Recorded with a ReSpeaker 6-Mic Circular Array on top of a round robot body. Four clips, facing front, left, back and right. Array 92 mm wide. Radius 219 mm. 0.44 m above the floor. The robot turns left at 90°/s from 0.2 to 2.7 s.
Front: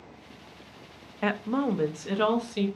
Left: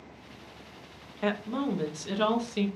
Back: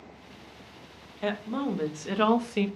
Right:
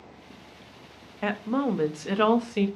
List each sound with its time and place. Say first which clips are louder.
1.2 s a woman speaking: right 3 dB, front 3 dB; 25° right, 0.7 m; by 2.7 s 155° right, 0.7 m